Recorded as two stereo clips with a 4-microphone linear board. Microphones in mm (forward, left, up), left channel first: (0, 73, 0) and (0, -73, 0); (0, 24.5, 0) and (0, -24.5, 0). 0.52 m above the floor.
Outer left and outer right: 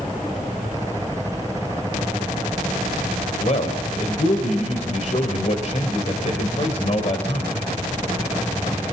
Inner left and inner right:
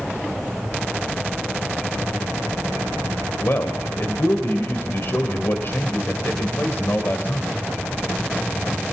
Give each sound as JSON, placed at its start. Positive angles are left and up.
{"t": 3.4, "sound": "a man speaking", "side_deg": 55, "distance_m": 3.0}